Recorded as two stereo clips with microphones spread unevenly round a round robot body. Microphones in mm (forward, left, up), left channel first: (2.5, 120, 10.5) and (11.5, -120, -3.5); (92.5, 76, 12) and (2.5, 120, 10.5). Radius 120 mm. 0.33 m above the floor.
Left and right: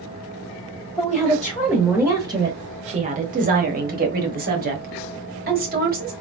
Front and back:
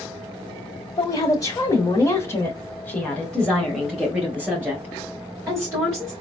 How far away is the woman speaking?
About 1.3 m.